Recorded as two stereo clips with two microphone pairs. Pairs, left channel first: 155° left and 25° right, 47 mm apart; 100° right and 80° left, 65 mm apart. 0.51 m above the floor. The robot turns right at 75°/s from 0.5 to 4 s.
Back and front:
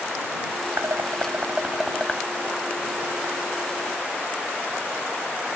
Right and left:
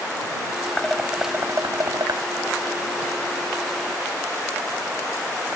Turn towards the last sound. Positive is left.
turn(degrees=-140)